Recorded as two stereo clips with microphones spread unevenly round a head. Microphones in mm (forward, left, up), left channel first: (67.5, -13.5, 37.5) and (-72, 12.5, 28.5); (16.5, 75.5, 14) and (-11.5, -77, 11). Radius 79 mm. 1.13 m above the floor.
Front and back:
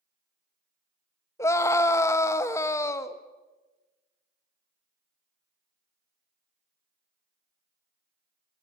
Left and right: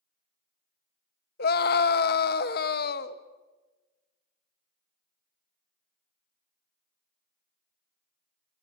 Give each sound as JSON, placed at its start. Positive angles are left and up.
{"t": 1.4, "sound": "a scream", "azimuth_deg": 60, "distance_m": 1.7}